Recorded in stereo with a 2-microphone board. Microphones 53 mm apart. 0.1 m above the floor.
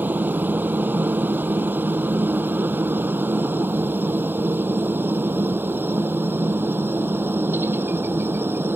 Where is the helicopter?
40° right (ahead or behind); by 8.8 s 45° right (ahead or behind).